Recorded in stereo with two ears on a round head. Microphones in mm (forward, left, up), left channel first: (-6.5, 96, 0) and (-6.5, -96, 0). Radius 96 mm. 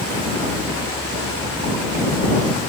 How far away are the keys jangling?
No keys jangling in this recording.